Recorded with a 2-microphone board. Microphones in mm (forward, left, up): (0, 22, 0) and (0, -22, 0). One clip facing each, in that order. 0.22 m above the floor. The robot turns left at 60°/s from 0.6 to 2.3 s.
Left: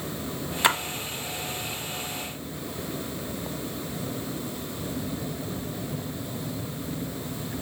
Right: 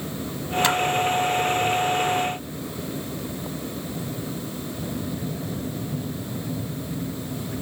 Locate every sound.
0.6 s a splash: 15° left (ahead or behind), 1.0 m; by 0.8 s 20° left (ahead or behind), 1.0 m